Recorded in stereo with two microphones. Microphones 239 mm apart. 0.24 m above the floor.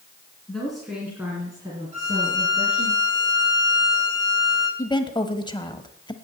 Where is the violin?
30° right (ahead or behind), 6.5 m.